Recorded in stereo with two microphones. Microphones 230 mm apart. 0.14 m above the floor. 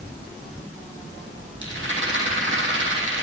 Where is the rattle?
60° right (ahead or behind), 5 m.